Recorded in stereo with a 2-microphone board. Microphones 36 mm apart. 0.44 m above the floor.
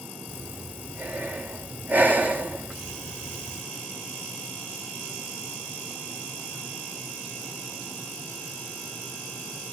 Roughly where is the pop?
I don't hear a pop.